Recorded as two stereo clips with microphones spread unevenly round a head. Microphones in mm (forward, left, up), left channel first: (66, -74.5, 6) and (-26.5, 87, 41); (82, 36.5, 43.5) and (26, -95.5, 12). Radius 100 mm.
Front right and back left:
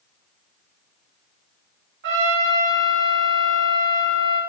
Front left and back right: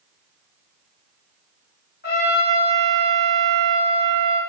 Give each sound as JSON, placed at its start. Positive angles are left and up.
{"t": 2.0, "sound": "a trumpet", "azimuth_deg": 100, "distance_m": 3.0}